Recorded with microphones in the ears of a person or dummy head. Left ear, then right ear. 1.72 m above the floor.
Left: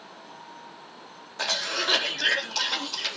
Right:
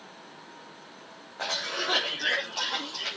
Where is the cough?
80° left, 4 m.